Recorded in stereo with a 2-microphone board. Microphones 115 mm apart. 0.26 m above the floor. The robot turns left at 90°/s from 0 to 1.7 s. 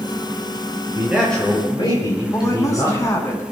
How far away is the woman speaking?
About 2.5 m.